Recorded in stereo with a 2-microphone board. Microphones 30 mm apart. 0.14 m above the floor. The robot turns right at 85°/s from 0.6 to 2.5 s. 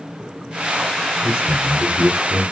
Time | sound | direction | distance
1.2 | a man speaking | 25° right (ahead or behind) | 1.1 m